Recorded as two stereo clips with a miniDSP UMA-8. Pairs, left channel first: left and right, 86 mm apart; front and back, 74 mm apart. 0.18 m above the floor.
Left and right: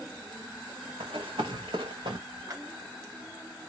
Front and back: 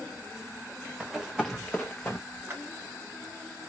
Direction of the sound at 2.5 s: 125° right.